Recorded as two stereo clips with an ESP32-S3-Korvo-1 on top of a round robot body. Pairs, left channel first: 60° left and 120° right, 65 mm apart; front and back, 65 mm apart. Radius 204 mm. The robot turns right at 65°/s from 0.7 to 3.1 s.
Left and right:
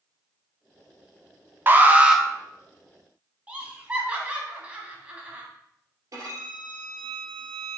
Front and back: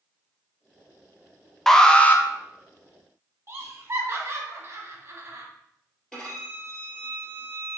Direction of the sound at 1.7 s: 80° right.